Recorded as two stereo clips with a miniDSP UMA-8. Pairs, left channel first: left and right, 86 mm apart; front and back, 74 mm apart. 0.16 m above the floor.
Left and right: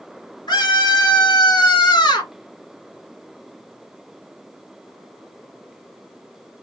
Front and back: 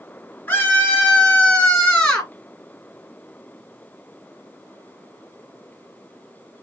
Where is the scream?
60° left, 3.5 m; by 2.3 s 70° left, 2.5 m.